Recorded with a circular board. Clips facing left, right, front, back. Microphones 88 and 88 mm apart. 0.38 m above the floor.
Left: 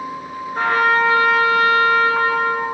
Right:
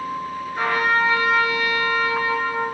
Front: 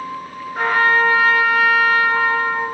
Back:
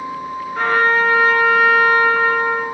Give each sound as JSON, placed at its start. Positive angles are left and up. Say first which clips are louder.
{"t": 0.6, "sound": "a trumpet", "louder": "left 4 dB, even", "azimuth_deg": 70, "distance_m": 2.0}